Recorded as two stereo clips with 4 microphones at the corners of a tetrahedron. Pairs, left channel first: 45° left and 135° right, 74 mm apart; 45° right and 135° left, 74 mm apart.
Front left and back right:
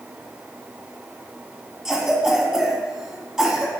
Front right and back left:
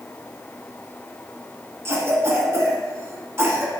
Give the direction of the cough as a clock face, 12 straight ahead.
7 o'clock.